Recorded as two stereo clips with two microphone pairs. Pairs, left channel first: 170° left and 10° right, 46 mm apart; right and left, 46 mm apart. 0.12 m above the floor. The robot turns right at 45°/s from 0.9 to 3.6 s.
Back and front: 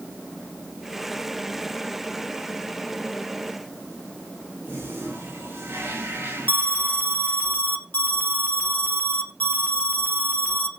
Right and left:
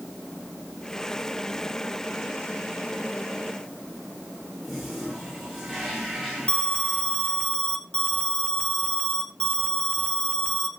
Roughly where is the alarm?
Behind right.